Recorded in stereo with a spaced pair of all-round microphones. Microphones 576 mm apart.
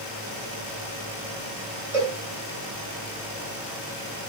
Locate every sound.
1.9 s a cowbell: 85° right, 4 m